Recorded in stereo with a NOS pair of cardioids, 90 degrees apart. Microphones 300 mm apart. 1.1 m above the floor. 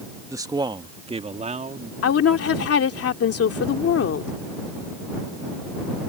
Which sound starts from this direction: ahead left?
A woman speaking, at 2.0 s.